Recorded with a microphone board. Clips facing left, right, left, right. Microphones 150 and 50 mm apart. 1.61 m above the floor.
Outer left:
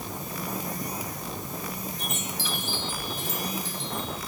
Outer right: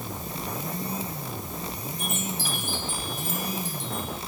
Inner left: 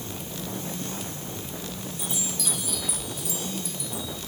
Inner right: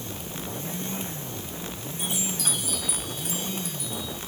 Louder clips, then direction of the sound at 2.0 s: Outer right 2 dB, inner right 4 dB; 50° right (ahead or behind).